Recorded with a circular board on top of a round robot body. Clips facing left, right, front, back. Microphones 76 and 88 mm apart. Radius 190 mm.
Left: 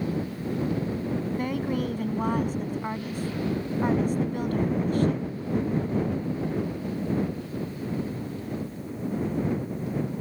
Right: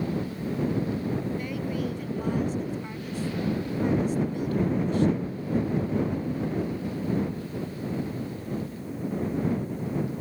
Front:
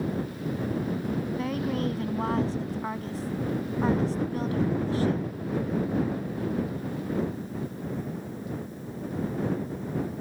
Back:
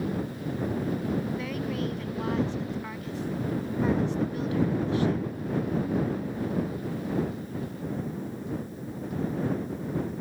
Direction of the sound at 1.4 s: 50° left.